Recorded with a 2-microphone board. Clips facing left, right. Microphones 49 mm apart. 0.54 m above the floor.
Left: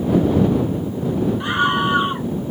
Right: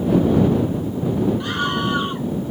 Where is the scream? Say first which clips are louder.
Left 4 dB; 20° left (ahead or behind).